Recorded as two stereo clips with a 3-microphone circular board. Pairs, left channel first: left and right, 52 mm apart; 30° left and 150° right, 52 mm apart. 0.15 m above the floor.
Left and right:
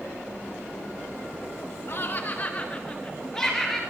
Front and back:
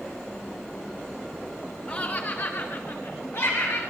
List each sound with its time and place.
1.9 s laughter: 80° left, 2 m; by 3.8 s 5° left, 3 m